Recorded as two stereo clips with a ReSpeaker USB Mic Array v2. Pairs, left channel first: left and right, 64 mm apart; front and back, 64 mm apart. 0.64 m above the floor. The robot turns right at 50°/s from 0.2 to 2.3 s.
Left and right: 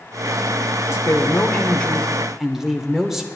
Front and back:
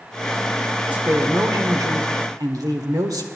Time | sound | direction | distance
0.9 | a woman speaking | 115° left | 1.6 m